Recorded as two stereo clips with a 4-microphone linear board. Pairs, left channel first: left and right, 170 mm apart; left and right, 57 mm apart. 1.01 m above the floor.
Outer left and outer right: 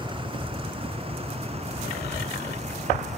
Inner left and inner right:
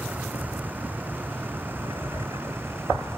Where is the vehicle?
30° right (ahead or behind); by 3.2 s 45° right (ahead or behind).